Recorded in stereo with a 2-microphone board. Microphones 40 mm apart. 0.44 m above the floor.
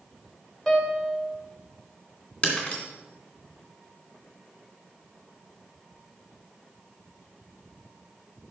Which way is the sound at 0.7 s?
10° left (ahead or behind).